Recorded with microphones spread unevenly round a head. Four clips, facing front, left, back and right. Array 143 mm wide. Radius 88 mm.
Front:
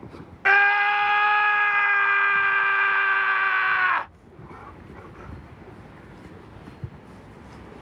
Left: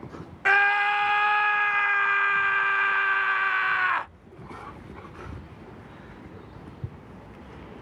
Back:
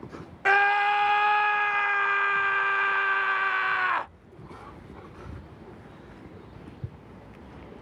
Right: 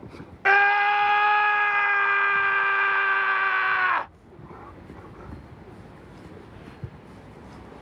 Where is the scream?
90° right.